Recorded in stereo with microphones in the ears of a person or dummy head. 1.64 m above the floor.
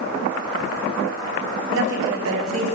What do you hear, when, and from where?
1.7 s a woman speaking: 75° right (ahead or behind), 5.5 m; by 2.8 s 80° right, 4.5 m